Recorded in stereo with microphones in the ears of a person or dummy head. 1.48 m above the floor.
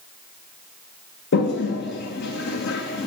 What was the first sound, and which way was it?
A toilet flushing, 60° left (ahead or behind).